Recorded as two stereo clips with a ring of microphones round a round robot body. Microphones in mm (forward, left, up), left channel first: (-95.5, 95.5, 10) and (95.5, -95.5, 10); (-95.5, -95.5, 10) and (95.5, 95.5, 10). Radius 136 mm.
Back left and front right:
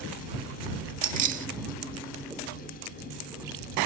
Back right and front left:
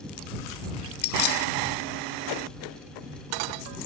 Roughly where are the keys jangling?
Right.